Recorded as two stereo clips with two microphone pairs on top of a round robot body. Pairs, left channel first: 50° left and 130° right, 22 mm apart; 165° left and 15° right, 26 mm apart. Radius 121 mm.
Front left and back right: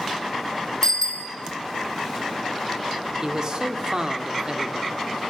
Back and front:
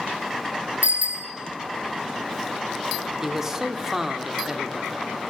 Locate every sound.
0.8 s a bicycle bell: 10° right, 2.5 m
3.2 s a man speaking: 80° right, 1.1 m